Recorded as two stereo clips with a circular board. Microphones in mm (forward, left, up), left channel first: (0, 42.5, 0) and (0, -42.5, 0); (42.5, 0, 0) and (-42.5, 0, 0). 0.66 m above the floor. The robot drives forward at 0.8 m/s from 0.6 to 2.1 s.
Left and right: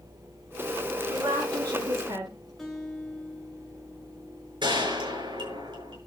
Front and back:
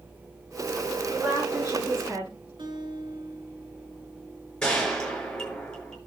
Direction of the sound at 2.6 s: 175° left.